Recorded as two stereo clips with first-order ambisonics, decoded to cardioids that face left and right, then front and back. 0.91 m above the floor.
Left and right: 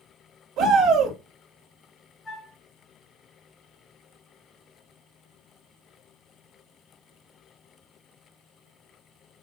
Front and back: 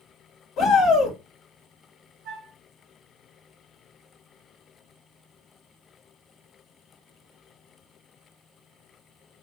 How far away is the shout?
About 1.5 m.